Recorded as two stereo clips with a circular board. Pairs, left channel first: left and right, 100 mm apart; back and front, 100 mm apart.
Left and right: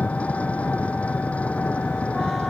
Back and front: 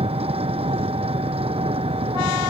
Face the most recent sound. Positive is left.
turn(degrees=15)